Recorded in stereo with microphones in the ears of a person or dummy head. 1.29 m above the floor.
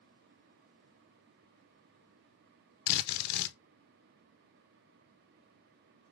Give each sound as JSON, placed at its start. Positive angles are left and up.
{"t": 2.9, "sound": "a drill", "side_deg": 55, "distance_m": 0.7}